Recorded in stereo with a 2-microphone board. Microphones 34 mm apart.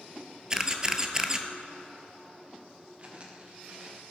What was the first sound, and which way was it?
A camera shutter, 20° right (ahead or behind).